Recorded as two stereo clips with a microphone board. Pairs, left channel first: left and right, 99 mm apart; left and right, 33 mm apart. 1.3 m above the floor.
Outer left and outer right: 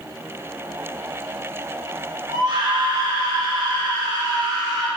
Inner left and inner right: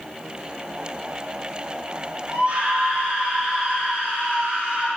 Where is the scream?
55° right (ahead or behind), 2.5 m; by 4.9 s 30° right (ahead or behind), 6.5 m.